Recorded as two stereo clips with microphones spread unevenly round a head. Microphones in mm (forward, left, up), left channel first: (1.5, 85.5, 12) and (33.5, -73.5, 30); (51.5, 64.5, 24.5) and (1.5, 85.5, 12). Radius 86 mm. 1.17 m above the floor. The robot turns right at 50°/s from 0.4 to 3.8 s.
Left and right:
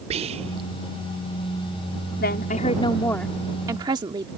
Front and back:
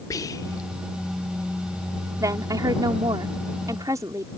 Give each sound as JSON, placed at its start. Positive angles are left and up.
{"t": 0.1, "sound": "whispering", "azimuth_deg": -30}
{"t": 2.2, "sound": "a woman speaking", "azimuth_deg": 135}